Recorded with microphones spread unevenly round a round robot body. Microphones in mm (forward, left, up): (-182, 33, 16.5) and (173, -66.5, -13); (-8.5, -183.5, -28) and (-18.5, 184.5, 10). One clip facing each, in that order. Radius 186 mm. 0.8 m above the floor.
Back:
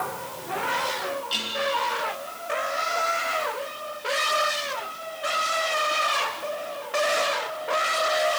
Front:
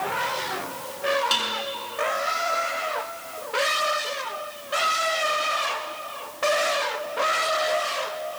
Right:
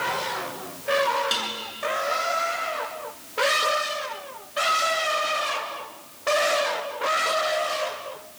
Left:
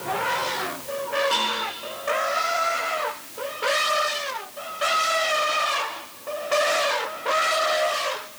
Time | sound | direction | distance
1.3 | dishes clattering | 25° right | 7 m